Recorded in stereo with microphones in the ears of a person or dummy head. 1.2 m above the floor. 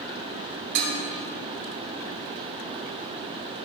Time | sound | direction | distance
0.8 | dishes clattering | 60° right (ahead or behind) | 2.5 m